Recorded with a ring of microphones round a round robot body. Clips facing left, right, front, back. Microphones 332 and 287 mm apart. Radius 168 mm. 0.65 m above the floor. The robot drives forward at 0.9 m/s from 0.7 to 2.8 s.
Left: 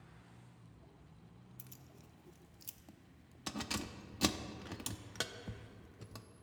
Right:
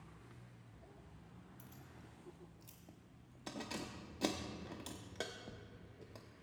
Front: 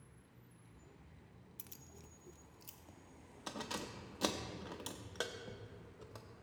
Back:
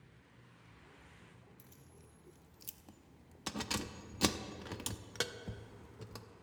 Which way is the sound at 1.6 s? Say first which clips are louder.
Right 1 dB, front 1 dB; 30° left.